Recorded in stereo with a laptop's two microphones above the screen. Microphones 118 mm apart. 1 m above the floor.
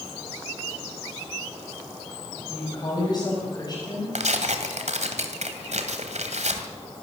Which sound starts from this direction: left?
A woman speaking, at 2.5 s.